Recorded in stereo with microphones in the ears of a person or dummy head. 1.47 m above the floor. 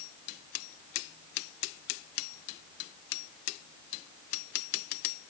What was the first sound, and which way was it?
Only background noise.